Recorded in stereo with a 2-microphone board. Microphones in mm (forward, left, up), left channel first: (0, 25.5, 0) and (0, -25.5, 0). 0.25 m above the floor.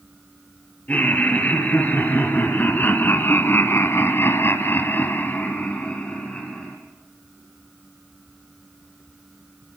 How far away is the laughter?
About 5 m.